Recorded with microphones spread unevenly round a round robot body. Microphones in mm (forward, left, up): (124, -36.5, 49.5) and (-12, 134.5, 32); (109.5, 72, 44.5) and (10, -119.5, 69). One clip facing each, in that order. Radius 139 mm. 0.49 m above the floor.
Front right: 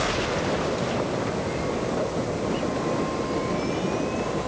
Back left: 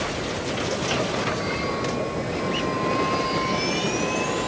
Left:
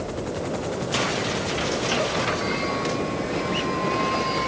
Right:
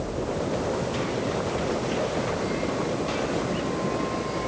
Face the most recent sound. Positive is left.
No sound to turn to.